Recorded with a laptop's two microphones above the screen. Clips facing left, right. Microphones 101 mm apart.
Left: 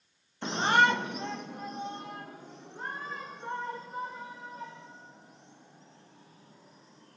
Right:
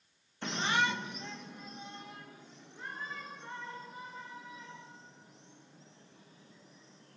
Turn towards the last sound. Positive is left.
turn(degrees=45)  # may be behind; listen again after turning